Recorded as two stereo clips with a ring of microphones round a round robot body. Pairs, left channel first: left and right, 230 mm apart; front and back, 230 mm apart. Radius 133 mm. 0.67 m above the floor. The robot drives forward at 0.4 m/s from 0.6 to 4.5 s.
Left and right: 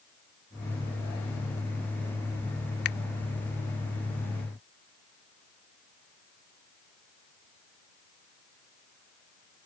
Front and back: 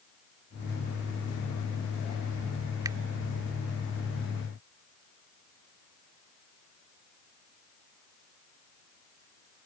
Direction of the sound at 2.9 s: 105° left.